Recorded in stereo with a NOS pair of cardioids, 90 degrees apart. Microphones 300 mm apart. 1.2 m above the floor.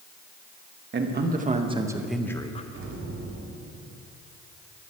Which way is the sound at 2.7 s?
45° right.